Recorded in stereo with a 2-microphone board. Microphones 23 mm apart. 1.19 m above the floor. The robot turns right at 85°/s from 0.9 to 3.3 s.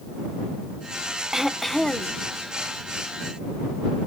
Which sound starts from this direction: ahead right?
Throat clearing, at 1.3 s.